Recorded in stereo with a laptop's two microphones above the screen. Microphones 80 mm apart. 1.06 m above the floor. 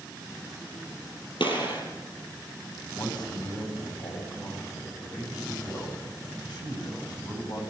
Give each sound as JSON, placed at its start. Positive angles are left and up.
{"t": 1.4, "sound": "a gunshot", "side_deg": 80, "distance_m": 5.5}
{"t": 3.0, "sound": "a man speaking", "side_deg": 65, "distance_m": 8.0}